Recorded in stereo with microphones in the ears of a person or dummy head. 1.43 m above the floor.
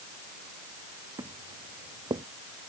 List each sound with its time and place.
1.2 s footsteps: 15° right (ahead or behind); by 2.2 s 20° right (ahead or behind)